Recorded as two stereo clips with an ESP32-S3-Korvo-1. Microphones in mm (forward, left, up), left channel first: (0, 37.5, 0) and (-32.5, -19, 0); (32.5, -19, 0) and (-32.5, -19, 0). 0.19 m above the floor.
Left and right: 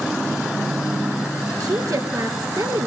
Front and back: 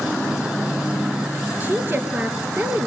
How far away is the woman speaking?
About 3.5 m.